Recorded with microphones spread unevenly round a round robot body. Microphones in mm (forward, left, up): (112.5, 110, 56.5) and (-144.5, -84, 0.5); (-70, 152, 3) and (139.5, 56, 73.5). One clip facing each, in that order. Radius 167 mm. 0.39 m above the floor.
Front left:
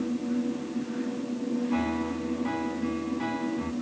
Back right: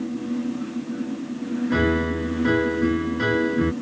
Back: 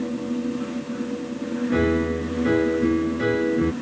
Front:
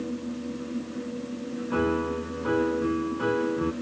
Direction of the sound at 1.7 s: 135° right.